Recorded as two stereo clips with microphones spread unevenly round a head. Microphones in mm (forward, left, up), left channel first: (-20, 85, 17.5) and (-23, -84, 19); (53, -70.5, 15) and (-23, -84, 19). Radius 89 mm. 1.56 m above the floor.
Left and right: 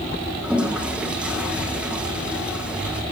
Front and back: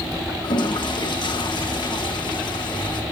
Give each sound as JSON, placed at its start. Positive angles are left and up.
{"t": 0.4, "sound": "a toilet flushing", "azimuth_deg": -5, "distance_m": 2.0}